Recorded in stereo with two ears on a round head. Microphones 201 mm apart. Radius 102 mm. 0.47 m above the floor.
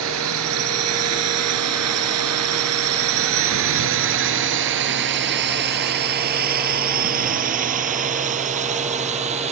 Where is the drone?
65° right (ahead or behind); by 9.5 s 30° right (ahead or behind).